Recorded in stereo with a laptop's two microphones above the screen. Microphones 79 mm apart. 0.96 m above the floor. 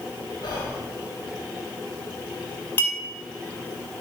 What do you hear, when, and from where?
0.4 s whispering: 75° left (ahead or behind), 3.5 m
2.8 s a clink: 25° left (ahead or behind), 1.9 m